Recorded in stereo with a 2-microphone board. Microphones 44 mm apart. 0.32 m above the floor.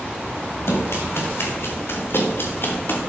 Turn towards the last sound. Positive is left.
turn(degrees=60)  # may be behind; listen again after turning